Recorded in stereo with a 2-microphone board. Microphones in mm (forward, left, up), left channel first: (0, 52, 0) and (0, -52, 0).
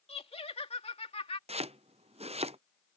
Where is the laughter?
80° left; by 1.4 s 75° left (ahead or behind).